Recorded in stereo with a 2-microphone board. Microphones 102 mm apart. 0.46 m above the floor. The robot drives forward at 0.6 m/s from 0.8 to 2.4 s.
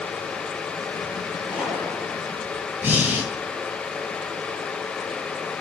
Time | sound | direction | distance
1.5 | a gunshot | 5° right (ahead or behind) | 7.5 m
2.8 | breathing | 20° right (ahead or behind) | 3.5 m